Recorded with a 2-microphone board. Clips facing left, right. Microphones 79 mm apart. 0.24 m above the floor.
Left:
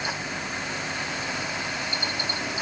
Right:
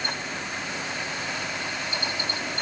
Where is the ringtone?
I don't hear a ringtone.